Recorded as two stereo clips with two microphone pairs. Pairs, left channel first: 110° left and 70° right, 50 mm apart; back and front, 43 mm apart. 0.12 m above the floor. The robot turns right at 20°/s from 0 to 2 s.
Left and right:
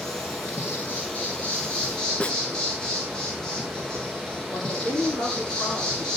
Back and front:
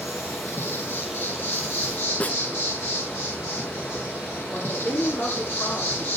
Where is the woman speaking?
150° left, 6.5 m.